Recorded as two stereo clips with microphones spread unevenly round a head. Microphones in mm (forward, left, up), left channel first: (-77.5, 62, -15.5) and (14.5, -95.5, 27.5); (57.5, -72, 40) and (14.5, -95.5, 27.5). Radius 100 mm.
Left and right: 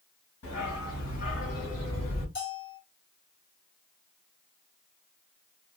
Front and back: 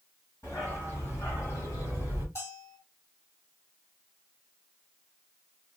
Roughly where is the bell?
Left.